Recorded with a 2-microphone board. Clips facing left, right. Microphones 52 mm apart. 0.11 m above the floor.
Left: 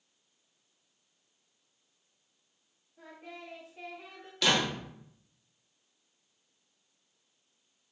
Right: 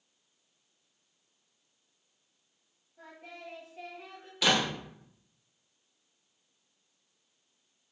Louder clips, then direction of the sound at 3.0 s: Left 1 dB; 5° left (ahead or behind).